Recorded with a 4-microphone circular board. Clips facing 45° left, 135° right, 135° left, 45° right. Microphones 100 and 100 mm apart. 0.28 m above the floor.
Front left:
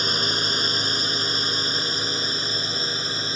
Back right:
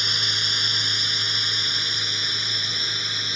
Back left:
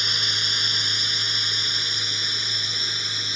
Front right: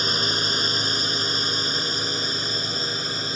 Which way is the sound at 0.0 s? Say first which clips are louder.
Front left 6 dB, front right 6 dB; straight ahead.